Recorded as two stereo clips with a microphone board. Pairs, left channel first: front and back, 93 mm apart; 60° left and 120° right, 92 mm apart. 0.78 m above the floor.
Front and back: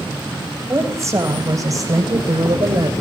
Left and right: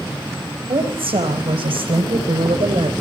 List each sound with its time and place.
0.7 s a woman speaking: 120° right, 4 m; by 2.9 s 140° right, 3 m